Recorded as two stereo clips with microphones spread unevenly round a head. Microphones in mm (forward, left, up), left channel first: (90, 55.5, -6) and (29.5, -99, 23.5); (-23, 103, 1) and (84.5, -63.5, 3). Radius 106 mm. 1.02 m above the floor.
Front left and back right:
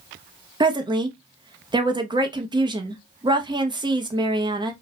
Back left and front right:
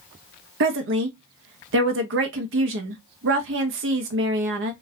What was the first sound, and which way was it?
A woman speaking, 45° right.